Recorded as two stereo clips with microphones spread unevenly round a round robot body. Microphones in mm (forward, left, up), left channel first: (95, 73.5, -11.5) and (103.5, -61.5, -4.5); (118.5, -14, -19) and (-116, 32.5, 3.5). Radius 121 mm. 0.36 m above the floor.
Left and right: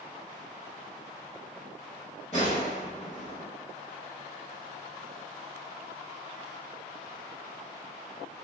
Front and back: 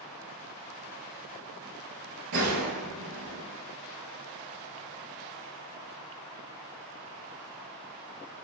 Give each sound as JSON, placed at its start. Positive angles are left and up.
{"t": 2.3, "sound": "a gunshot", "azimuth_deg": 160, "distance_m": 1.3}